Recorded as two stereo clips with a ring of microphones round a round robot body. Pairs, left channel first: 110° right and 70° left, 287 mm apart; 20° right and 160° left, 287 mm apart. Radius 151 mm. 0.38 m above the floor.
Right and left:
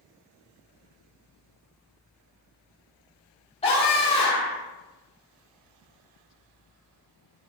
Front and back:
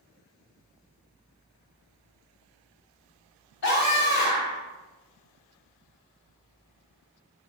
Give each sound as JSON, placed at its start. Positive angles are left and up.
{"t": 3.6, "sound": "a scream", "azimuth_deg": -45, "distance_m": 3.0}